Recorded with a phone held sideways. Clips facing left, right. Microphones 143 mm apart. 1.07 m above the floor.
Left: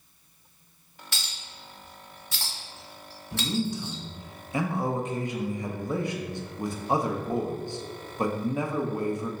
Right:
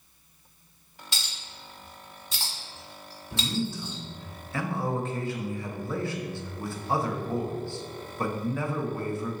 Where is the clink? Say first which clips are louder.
Even; 20° right (ahead or behind), 1.8 m.